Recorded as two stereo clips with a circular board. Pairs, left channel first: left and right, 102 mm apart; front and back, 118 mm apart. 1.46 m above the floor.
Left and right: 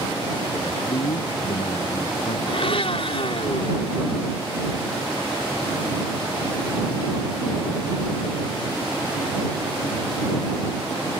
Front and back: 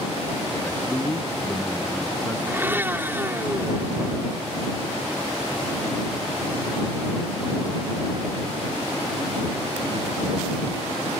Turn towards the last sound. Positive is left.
turn(degrees=105)